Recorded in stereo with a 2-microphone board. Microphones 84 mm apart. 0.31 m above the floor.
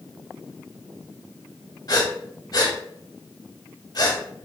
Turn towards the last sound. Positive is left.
turn(degrees=50)  # may be behind; listen again after turning